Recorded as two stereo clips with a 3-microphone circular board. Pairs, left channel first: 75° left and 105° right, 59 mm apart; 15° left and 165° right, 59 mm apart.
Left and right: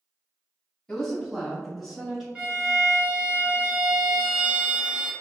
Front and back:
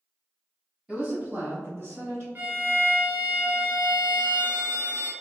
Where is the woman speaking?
145° left, 1.1 m; by 2.2 s 170° left, 1.9 m.